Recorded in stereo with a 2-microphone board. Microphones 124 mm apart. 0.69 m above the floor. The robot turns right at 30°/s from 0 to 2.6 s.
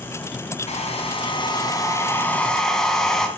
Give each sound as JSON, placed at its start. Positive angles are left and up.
{"t": 0.7, "sound": "a hair dryer", "azimuth_deg": 120, "distance_m": 1.8}